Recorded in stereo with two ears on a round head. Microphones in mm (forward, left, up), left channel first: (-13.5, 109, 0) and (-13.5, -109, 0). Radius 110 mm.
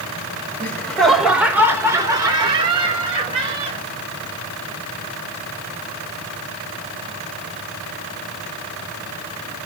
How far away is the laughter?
About 1.1 m.